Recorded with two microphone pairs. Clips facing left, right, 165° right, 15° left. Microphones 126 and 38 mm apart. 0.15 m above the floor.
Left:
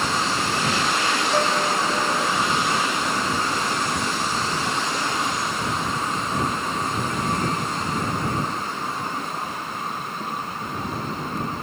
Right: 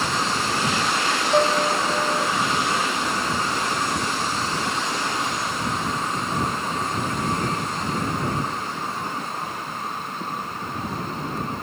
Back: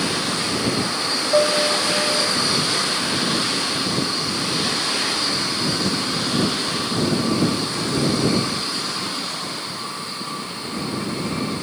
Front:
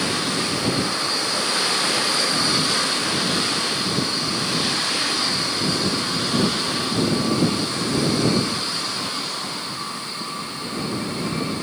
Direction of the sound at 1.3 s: 160° right.